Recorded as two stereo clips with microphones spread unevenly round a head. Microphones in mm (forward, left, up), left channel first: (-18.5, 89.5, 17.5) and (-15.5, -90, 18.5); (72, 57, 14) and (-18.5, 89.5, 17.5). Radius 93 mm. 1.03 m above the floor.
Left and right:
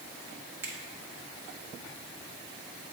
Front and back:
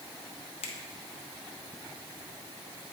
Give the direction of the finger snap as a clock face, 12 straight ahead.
12 o'clock.